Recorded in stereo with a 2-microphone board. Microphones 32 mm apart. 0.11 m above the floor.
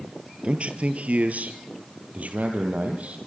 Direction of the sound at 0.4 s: 45° right (ahead or behind).